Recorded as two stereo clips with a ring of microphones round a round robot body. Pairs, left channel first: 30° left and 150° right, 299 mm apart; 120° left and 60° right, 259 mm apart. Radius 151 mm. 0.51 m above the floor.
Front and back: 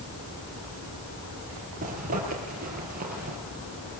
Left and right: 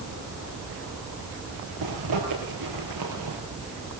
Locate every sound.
1.8 s a zipper: 85° right, 5 m